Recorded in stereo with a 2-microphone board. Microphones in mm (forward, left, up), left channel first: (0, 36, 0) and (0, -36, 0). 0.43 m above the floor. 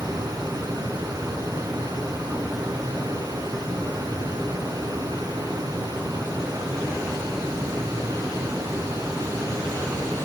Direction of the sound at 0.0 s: 65° right (ahead or behind).